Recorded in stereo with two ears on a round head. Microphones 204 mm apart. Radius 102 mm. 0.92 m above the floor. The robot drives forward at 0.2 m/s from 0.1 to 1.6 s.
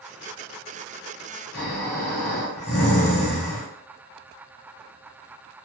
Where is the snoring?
75° left (ahead or behind), 1.3 m.